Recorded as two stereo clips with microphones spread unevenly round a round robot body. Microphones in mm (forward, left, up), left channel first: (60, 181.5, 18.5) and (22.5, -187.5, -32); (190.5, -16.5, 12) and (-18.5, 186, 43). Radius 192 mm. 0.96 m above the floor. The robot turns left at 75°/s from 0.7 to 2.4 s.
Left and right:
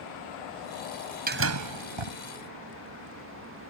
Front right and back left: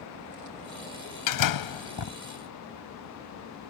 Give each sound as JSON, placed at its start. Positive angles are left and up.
{"t": 1.3, "sound": "a door slam", "azimuth_deg": -25}